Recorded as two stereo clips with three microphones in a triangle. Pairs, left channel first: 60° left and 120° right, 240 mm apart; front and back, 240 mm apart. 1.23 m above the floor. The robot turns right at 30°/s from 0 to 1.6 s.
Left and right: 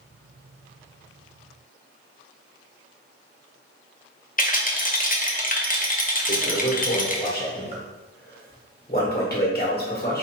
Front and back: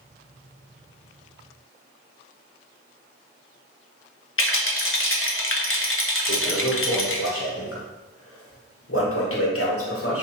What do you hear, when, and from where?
4.4 s a rattle: 10° left, 0.6 m
6.3 s a toilet flushing: 15° left, 1.1 m